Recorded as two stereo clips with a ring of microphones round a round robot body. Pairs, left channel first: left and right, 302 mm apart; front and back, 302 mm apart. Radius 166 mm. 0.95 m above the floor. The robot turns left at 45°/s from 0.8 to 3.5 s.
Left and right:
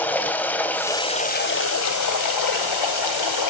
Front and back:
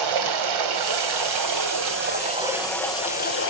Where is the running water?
175° left, 1.8 m; by 3.5 s 55° left, 1.8 m.